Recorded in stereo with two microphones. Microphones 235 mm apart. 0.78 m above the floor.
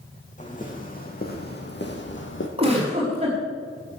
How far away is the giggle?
About 4.5 m.